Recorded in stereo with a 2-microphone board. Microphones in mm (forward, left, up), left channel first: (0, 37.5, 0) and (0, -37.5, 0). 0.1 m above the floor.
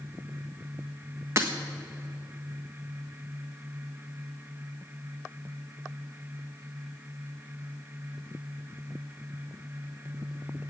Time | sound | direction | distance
1.4 | breaking glass | 35° right (ahead or behind) | 1.4 m